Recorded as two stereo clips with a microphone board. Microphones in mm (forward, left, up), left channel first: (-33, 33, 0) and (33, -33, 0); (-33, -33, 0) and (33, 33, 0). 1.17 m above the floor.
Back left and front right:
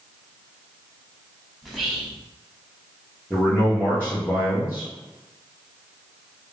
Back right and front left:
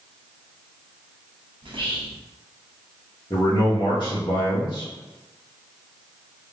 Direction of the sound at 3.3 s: 155° right.